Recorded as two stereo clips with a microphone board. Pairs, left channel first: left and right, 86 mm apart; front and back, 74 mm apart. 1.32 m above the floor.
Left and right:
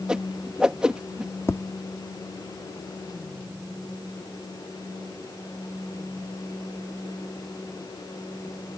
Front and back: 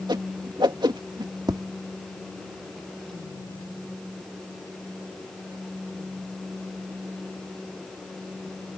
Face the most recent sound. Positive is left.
turn(degrees=150)